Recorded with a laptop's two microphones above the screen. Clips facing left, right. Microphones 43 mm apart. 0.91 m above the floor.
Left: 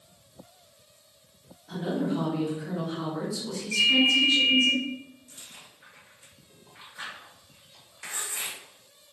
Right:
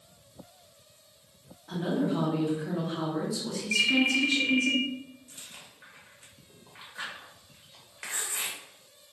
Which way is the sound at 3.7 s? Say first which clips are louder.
Left 3 dB; 60° right (ahead or behind).